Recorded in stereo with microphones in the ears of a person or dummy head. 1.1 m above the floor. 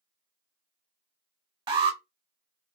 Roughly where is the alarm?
Right.